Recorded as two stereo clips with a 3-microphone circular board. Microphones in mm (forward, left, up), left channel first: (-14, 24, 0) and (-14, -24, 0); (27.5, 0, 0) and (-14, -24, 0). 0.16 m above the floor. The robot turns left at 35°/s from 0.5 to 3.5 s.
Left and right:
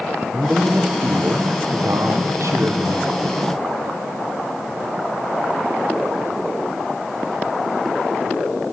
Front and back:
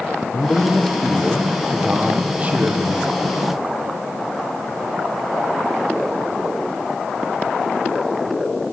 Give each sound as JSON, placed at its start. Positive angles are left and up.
{"t": 0.3, "sound": "a man speaking", "azimuth_deg": -20, "distance_m": 4.0}